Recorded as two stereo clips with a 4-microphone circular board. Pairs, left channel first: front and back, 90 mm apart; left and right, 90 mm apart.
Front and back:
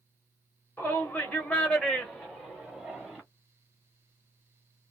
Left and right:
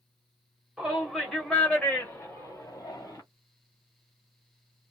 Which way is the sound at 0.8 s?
15° right.